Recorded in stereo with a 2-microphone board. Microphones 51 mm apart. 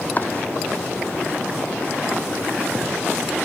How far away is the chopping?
About 0.9 m.